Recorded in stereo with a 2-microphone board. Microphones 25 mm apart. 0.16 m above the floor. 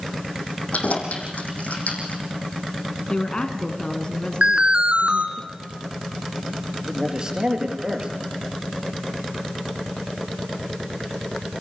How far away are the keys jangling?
About 4.5 m.